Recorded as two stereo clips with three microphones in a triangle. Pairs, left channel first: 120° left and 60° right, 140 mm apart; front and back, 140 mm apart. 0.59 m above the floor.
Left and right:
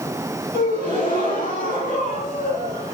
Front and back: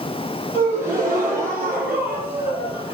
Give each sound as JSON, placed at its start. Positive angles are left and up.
{"t": 0.5, "sound": "a gasp", "azimuth_deg": 105, "distance_m": 7.0}